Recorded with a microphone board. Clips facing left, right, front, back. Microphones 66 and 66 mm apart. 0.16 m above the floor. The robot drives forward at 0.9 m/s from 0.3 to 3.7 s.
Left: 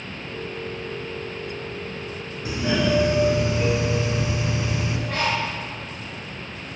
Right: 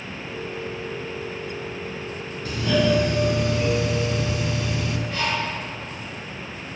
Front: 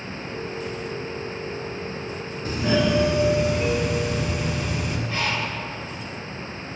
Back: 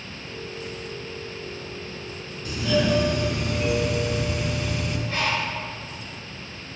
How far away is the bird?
About 5.5 m.